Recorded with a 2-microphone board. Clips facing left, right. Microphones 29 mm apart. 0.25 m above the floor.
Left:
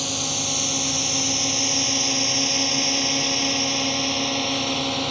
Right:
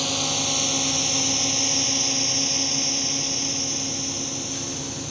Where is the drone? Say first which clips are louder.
Right 2 dB; 10° right (ahead or behind); by 5.1 s 55° left (ahead or behind).